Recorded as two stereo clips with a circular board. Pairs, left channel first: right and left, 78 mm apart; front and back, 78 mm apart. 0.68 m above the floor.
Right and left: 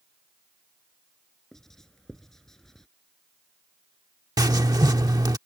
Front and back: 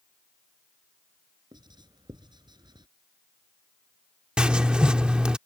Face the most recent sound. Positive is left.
turn(degrees=105)